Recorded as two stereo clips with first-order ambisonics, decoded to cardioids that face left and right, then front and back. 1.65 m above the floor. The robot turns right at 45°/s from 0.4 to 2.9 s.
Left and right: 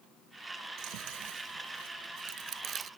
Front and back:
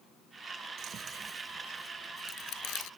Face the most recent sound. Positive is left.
turn(degrees=-30)